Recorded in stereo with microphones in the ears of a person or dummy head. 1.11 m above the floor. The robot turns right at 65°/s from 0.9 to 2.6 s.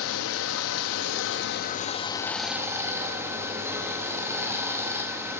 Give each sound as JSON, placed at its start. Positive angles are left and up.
{"t": 0.0, "sound": "running water", "azimuth_deg": 80, "distance_m": 1.0}